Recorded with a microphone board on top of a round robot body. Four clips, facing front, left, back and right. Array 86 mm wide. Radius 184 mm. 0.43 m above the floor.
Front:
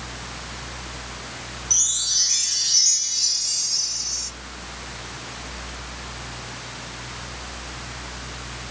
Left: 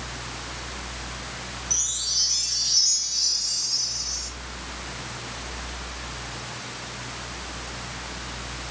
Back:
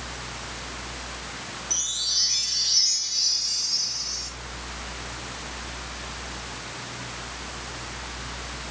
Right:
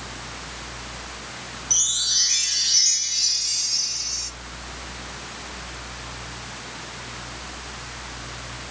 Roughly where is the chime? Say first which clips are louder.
Right 3 dB, front 1 dB; right.